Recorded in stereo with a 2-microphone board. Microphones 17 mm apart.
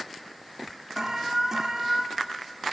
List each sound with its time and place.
1.0 s an alarm: 25° right (ahead or behind), 0.6 m